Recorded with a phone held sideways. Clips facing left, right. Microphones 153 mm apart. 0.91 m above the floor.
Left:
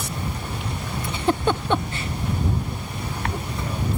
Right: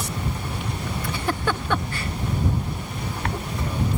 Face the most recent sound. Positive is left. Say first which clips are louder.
# left 5 dB
turn(degrees=20)  # may be behind; listen again after turning